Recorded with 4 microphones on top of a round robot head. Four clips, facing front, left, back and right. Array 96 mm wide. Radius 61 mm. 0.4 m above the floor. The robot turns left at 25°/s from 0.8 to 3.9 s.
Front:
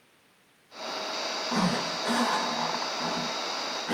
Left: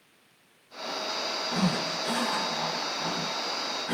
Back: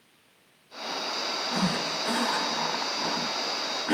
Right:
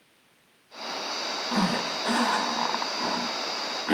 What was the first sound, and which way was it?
A zipper, 60° right.